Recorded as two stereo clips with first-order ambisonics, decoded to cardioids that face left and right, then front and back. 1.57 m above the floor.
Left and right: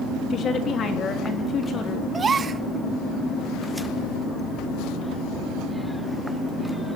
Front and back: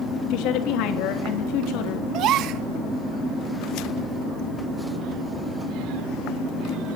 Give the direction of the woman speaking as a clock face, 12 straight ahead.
11 o'clock.